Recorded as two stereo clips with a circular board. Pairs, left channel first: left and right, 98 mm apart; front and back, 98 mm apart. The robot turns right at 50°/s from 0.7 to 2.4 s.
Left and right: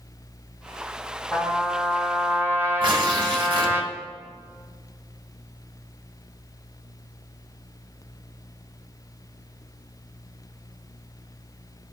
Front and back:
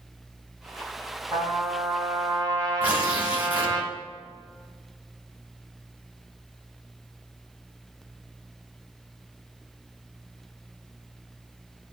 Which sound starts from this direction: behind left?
A trumpet, at 1.3 s.